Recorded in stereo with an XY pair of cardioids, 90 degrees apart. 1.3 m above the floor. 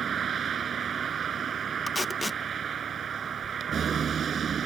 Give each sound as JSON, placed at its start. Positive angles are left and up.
{"t": 0.0, "sound": "a vehicle", "azimuth_deg": -55}
{"t": 1.9, "sound": "tape being pulled", "azimuth_deg": 20}